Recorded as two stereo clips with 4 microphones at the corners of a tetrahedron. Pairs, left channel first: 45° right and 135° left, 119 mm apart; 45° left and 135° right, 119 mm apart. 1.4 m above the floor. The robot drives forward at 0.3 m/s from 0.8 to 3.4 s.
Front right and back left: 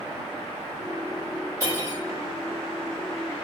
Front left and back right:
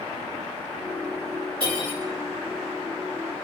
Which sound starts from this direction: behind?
Cutlery clinking, at 1.6 s.